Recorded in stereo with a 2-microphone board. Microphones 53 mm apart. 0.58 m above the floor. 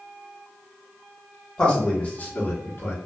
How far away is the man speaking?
About 1.0 m.